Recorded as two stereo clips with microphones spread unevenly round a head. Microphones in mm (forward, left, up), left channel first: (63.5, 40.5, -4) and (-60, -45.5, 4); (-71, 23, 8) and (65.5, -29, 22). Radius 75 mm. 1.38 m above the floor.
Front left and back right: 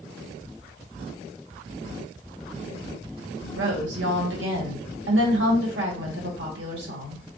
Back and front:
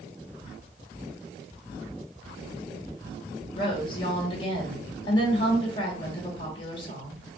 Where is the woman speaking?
140° right, 1.3 m.